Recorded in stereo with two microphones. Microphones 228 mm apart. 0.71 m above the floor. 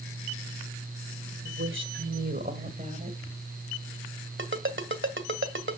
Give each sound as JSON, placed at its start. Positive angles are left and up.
{"t": 1.4, "sound": "a woman speaking", "side_deg": -65, "distance_m": 2.5}
{"t": 4.4, "sound": "a ringtone", "side_deg": -60, "distance_m": 1.9}